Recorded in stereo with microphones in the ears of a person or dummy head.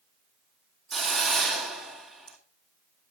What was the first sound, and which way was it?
A hiss, centre (ahead or behind).